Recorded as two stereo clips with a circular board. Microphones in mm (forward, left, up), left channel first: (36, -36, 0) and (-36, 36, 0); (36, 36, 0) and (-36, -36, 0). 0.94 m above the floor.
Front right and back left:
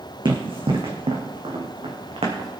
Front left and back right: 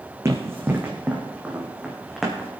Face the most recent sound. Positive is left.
turn(degrees=130)